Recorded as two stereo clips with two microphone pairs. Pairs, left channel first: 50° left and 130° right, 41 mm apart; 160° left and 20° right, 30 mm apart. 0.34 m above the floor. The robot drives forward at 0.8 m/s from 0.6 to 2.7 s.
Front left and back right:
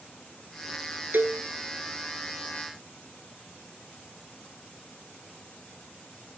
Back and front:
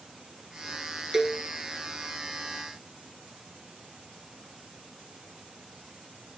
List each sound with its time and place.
1.1 s a cowbell: 95° right, 0.8 m; by 1.4 s 115° right, 0.8 m